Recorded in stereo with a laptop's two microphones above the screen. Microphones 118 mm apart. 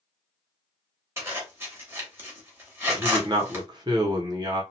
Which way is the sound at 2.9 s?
35° right (ahead or behind).